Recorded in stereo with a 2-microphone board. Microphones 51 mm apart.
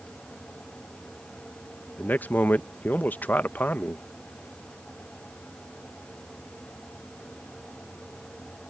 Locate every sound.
2.0 s a man speaking: 40° left (ahead or behind)